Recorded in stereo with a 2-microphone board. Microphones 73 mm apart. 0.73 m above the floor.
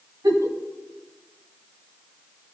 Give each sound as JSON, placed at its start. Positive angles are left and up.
{"t": 0.2, "sound": "a giggle", "side_deg": -60, "distance_m": 4.0}